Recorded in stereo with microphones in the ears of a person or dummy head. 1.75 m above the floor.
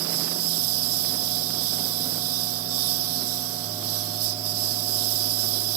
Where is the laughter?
No laughter in this recording.